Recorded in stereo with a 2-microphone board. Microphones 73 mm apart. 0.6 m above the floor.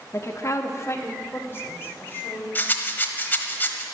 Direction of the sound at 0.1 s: 35° left (ahead or behind).